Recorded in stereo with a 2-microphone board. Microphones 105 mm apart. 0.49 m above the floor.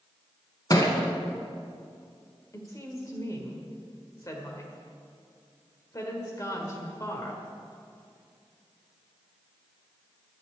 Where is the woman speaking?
35° left (ahead or behind), 1.7 m.